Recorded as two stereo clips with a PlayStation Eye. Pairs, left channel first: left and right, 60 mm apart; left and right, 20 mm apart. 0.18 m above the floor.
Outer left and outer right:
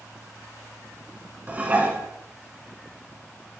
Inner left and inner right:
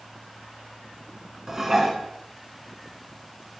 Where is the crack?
No crack in this recording.